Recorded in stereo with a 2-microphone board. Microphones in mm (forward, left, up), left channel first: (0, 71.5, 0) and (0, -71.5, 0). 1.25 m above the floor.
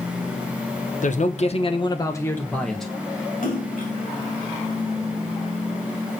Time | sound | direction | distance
1.0 | a man speaking | 65° left (ahead or behind) | 1.2 m
3.4 | a splash | 75° left (ahead or behind) | 2.5 m